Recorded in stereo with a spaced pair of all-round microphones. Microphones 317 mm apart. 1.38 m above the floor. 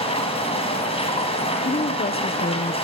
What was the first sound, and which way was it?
A machine running, 15° left (ahead or behind).